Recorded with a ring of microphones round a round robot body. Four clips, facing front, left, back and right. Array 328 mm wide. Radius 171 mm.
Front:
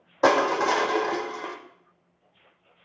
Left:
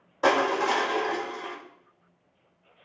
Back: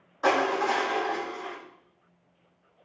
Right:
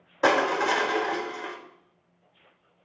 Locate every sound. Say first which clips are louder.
0.2 s crushing: even, front 4 dB; 20° right, 1.0 m